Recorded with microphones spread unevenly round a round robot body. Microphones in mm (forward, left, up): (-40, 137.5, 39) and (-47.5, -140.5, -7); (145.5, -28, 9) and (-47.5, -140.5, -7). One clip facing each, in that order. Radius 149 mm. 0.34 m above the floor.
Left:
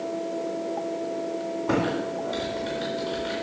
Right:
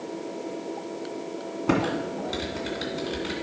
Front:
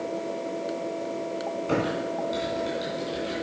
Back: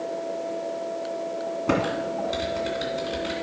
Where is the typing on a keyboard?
135° right, 2.5 m.